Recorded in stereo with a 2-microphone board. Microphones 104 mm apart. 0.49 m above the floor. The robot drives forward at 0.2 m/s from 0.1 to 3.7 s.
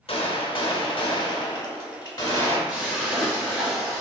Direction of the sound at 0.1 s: 65° left (ahead or behind).